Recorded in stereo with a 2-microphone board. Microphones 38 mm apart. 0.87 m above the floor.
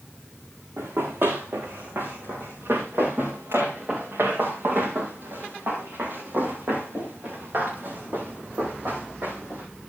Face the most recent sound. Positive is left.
turn(degrees=-55)  # may be behind; listen again after turning